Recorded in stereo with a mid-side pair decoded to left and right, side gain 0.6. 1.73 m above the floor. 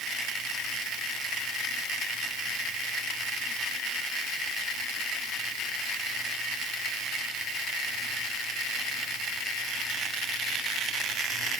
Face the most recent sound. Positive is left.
No sound to turn to.